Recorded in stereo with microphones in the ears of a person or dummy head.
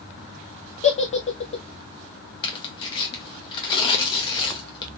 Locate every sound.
0.8 s a giggle: 40° left (ahead or behind), 0.6 m
2.4 s tearing paper: 25° left (ahead or behind), 0.8 m